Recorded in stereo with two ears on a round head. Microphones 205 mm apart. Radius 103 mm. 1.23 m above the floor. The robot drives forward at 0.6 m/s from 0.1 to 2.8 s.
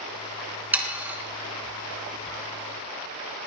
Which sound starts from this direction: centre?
Sawing, at 0.7 s.